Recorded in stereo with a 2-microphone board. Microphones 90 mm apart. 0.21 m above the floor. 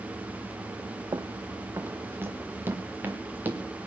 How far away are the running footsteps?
About 0.8 m.